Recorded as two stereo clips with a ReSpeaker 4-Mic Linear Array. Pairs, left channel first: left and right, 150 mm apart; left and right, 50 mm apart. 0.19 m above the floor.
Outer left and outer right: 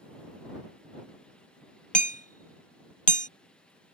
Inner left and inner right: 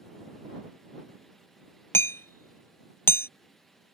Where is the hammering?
65° left (ahead or behind).